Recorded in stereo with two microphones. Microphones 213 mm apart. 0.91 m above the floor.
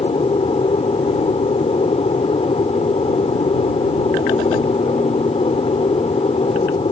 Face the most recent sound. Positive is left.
turn(degrees=25)  # may be behind; listen again after turning